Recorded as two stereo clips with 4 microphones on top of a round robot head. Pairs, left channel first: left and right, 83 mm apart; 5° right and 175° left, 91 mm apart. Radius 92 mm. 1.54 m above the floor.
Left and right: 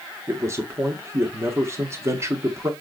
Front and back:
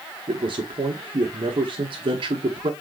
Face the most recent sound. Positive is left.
turn(degrees=-150)